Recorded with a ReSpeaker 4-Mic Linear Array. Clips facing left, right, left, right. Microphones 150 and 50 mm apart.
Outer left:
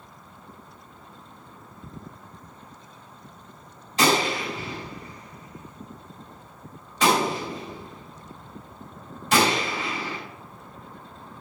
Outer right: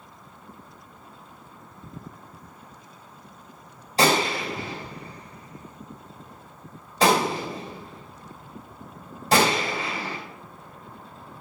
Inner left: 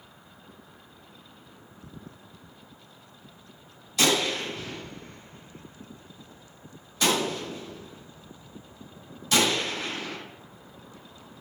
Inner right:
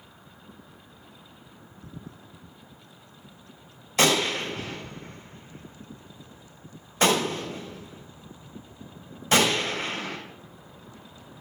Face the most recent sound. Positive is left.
turn(degrees=-35)  # may be behind; listen again after turning